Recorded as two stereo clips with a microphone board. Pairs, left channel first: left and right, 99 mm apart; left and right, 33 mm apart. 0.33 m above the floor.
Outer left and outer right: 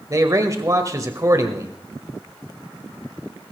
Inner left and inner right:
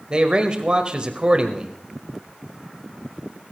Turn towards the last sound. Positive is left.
turn(degrees=-35)  # may be behind; listen again after turning